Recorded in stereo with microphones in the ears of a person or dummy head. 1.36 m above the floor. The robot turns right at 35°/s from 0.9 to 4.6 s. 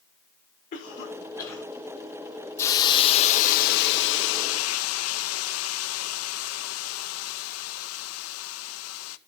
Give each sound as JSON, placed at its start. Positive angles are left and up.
{"t": 0.7, "sound": "a cough", "side_deg": 35, "distance_m": 5.5}
{"t": 2.6, "sound": "a hiss", "azimuth_deg": 15, "distance_m": 1.2}